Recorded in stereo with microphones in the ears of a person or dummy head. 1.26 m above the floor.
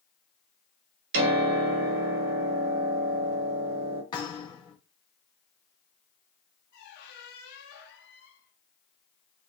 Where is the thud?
25° left (ahead or behind), 2 m.